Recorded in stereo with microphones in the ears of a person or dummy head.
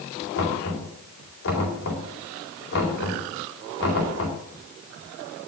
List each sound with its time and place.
0.3 s knocking: 75° left (ahead or behind), 4 m